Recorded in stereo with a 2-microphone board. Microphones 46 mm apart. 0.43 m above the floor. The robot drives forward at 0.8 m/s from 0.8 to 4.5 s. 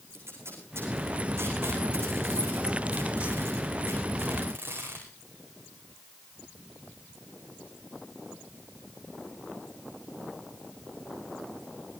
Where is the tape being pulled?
80° right, 9 m; by 5.0 s 60° right (ahead or behind), 10 m.